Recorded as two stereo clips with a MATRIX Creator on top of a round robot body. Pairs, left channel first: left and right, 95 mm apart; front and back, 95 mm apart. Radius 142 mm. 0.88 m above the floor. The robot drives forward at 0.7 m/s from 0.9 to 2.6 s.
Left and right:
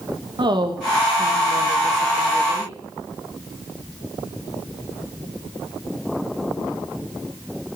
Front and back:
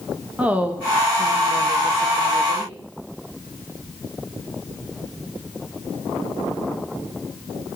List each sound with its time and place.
0.4 s a woman speaking: 110° right, 1.6 m; by 2.8 s 140° right, 2 m